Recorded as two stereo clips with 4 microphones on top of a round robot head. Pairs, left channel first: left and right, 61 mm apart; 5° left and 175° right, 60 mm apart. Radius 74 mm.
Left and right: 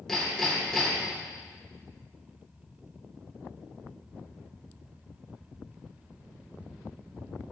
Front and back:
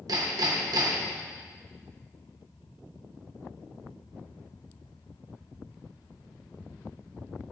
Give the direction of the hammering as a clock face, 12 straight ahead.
6 o'clock.